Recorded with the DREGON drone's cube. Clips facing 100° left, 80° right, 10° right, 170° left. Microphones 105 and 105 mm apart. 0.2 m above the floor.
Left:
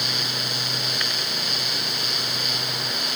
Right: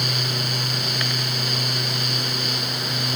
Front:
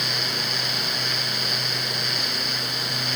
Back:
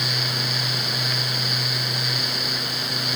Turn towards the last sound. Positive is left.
No sound to turn to.